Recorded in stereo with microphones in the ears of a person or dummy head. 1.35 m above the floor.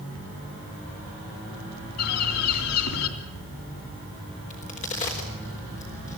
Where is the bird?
80° left, 3 m.